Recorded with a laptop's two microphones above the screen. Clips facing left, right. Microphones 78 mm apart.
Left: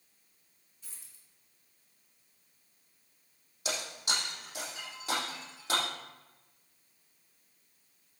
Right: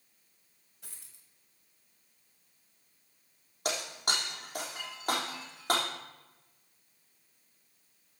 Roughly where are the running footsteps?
I don't hear running footsteps.